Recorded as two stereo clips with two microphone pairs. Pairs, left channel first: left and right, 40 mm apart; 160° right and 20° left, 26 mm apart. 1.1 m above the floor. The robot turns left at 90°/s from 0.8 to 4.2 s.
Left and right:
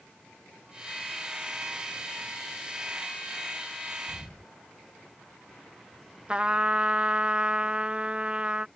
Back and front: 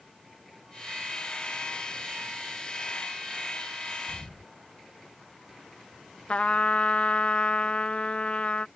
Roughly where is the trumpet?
Behind right.